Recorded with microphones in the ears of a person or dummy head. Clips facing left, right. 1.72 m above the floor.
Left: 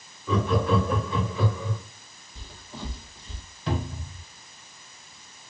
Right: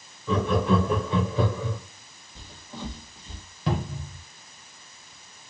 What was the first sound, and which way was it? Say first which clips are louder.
Laughter: right 1 dB; 5° right (ahead or behind).